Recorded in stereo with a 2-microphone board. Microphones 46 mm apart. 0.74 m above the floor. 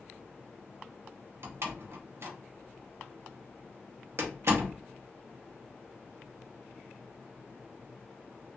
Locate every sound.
1.4 s a door slam: 60° right (ahead or behind), 0.6 m